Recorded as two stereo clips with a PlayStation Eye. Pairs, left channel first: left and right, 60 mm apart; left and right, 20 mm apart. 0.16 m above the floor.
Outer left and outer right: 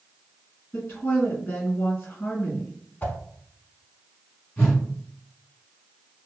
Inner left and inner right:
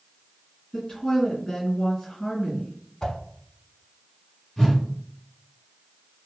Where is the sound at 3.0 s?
30° left (ahead or behind), 0.6 m.